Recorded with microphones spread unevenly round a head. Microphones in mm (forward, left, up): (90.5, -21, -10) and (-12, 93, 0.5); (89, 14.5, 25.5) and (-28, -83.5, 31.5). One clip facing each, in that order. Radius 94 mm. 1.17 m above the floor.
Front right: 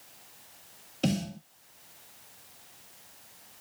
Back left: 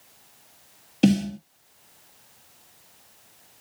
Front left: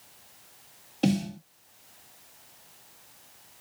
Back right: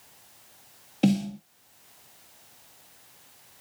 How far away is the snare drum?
About 1.2 m.